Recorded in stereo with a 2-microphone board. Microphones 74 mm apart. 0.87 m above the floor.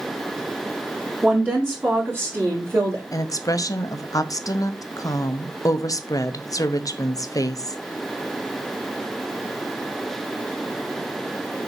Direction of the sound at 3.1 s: 50° left (ahead or behind).